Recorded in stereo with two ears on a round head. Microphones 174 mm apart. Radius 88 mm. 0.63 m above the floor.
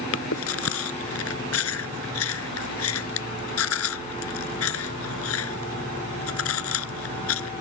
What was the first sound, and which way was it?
Chewing, 80° left.